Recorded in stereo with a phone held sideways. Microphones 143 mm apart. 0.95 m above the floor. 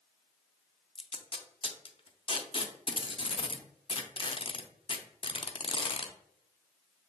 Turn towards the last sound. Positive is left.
turn(degrees=40)  # may be behind; listen again after turning